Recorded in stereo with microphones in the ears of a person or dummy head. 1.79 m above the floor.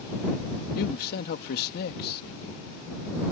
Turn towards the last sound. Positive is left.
turn(degrees=65)  # may be behind; listen again after turning